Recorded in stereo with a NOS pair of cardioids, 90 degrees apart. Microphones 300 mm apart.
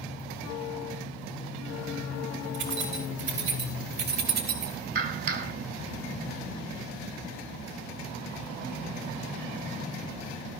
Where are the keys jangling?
70° right, 6 m; by 4.7 s 60° right, 3.5 m.